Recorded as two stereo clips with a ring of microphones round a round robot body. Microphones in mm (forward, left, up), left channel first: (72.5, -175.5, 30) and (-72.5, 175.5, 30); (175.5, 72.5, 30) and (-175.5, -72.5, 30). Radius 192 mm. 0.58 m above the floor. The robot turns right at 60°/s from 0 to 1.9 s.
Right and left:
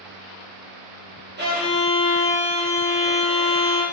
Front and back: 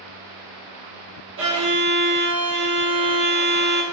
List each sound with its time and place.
1.4 s a violin: 160° left, 0.9 m; by 3.8 s 165° right, 0.9 m